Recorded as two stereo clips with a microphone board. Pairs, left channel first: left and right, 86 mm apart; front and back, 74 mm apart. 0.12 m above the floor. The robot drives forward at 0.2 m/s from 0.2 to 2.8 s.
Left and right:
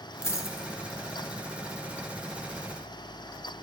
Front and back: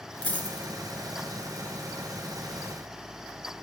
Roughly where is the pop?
No pop in this recording.